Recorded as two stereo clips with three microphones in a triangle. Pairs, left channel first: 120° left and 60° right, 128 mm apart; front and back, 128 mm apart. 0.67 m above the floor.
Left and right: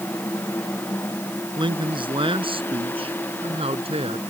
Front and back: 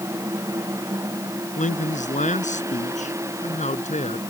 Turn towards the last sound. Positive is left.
turn(degrees=-20)